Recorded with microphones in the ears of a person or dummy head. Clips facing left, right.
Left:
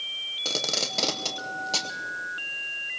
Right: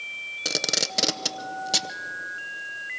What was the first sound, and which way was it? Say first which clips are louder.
Tape being pulled: right 1 dB; 20° right (ahead or behind).